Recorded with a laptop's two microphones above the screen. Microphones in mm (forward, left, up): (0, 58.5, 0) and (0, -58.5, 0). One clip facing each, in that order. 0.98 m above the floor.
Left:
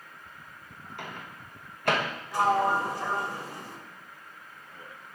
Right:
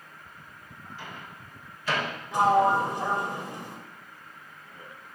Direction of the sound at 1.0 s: 60° left (ahead or behind).